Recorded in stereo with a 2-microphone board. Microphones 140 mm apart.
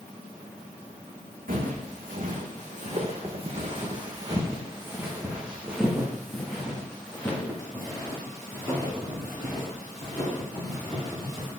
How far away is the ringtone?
No ringtone in this recording.